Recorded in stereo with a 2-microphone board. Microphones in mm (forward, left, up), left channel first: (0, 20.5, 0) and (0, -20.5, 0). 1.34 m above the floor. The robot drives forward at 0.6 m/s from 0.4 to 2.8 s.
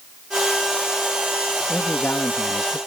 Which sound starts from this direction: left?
A man speaking, at 1.7 s.